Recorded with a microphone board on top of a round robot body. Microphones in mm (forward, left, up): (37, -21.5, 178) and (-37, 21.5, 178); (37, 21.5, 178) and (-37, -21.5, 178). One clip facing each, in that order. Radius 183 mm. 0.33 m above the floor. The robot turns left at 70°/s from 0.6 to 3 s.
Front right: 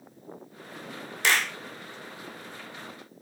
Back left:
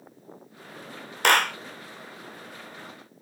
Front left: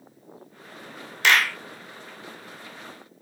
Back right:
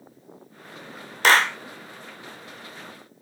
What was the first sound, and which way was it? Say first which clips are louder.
A clap: back left 5 dB, back right 3 dB; 165° left.